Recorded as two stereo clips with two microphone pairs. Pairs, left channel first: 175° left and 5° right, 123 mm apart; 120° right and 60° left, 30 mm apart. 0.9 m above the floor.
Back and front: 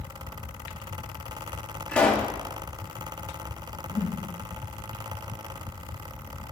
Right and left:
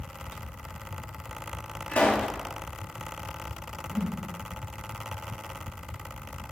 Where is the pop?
110° right, 2 m.